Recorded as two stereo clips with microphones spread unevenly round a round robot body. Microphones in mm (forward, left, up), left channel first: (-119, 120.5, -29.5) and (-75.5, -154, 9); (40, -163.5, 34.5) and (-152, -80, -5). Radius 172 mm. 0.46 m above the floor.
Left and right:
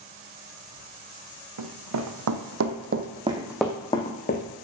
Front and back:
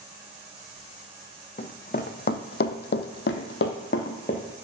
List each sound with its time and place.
1.6 s running footsteps: 70° right, 1.3 m; by 4.5 s 35° left, 1.1 m